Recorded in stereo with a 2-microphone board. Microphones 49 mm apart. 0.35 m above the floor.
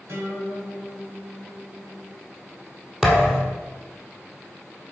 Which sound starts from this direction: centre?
A thud, at 3.0 s.